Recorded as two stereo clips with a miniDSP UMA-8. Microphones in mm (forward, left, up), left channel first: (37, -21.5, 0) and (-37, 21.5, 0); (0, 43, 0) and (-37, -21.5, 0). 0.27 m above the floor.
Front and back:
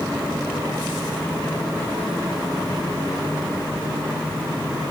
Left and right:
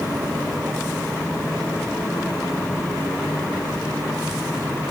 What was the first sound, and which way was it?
Only background noise.